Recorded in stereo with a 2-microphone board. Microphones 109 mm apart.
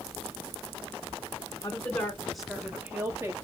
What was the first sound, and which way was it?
A woman speaking, 25° left (ahead or behind).